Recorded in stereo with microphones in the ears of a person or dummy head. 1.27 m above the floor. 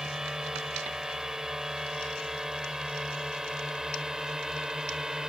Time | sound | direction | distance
0.0 | a drone | 5° right (ahead or behind) | ?